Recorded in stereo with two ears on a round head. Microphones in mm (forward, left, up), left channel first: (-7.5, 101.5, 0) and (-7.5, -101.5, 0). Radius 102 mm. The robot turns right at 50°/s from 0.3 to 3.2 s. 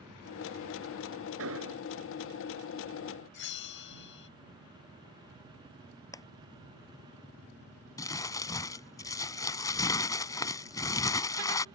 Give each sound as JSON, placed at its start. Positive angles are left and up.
{"t": 1.4, "sound": "an explosion", "side_deg": -65}
{"t": 3.3, "sound": "a bell", "side_deg": 50}
{"t": 6.1, "sound": "a clap", "side_deg": 15}
{"t": 8.0, "sound": "crumpling", "side_deg": 15}